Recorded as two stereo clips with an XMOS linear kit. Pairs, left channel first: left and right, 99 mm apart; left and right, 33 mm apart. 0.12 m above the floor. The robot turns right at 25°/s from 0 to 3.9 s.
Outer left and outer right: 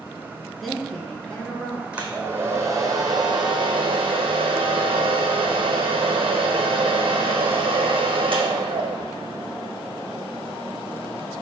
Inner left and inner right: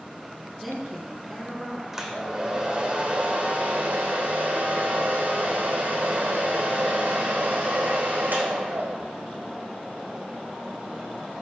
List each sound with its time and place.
0.6 s a woman speaking: centre (ahead or behind), 1.6 m; by 1.8 s 15° left (ahead or behind), 1.6 m
1.9 s a hair dryer: 170° right, 1.2 m; by 9.1 s 120° right, 1.2 m